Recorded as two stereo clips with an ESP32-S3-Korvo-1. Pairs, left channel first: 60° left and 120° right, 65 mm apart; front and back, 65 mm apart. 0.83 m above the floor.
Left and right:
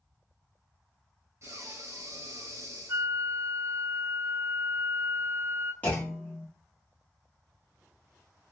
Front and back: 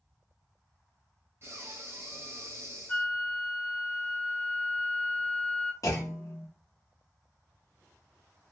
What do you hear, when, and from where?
1.4 s breathing: 145° right, 0.7 m
2.9 s a flute: 65° right, 0.5 m
5.8 s a clunk: straight ahead, 1.0 m